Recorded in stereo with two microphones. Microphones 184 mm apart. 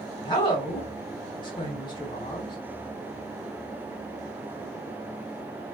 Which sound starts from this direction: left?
A woman speaking, at 0.2 s.